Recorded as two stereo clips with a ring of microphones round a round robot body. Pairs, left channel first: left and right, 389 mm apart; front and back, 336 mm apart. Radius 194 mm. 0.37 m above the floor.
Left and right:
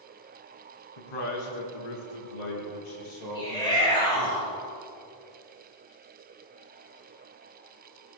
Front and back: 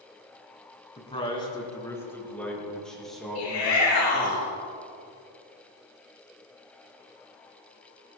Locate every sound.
1.0 s a man speaking: 70° left, 3.5 m; by 4.3 s 95° left, 8.5 m
3.4 s a shout: 10° left, 6 m